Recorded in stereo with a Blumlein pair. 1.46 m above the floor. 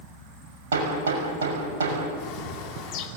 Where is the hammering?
60° right, 6 m.